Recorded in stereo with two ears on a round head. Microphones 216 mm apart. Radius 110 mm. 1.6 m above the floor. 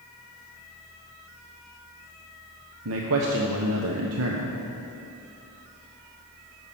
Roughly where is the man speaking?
Right.